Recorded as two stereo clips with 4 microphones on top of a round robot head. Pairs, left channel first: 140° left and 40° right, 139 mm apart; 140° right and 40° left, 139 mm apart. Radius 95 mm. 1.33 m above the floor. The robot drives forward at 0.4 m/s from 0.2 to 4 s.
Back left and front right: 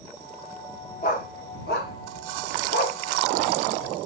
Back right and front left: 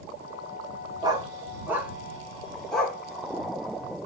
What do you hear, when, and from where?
1.0 s a dog barking: 100° left, 1.1 m; by 3.0 s 140° left, 1.5 m